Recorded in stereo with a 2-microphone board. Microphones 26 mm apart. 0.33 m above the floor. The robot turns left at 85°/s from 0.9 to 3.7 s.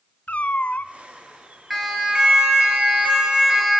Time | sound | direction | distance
0.3 | a cat meowing | 80° left | 0.9 m
1.7 | a siren | 5° left (ahead or behind) | 6 m